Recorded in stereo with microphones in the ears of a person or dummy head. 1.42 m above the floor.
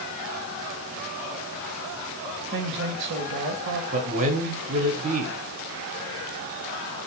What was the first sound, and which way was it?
A man speaking, 65° right (ahead or behind).